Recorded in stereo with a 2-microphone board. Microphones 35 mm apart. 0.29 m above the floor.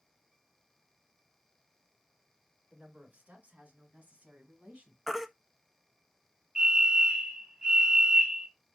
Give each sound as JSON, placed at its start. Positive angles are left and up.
{"t": 2.7, "sound": "a woman speaking", "side_deg": -45, "distance_m": 3.0}
{"t": 5.1, "sound": "a baby crying", "side_deg": -5, "distance_m": 0.6}
{"t": 6.5, "sound": "a fire alarm", "side_deg": -15, "distance_m": 2.5}